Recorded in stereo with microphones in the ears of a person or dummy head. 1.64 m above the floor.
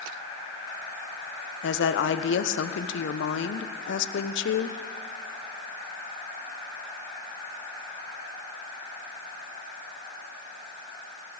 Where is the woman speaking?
75° left (ahead or behind), 1.1 m.